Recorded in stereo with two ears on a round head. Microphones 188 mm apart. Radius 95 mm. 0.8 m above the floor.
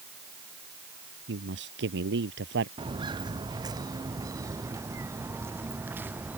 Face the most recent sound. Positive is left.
turn(degrees=-10)  # may be behind; listen again after turning